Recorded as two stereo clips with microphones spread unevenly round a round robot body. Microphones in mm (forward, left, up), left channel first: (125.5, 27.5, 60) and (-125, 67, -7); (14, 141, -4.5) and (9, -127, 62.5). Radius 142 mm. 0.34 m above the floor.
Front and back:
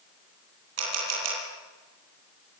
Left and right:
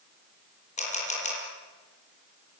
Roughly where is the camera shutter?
Behind left.